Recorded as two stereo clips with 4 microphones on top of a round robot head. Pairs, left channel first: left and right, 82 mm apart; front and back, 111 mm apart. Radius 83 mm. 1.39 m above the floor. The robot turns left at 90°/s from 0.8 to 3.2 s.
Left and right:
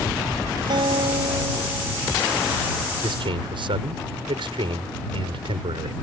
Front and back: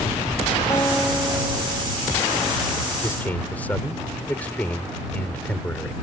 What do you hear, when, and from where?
0.7 s a guitar: 70° right; by 2.8 s 115° left
3.0 s a man speaking: 65° right; by 6.0 s 80° right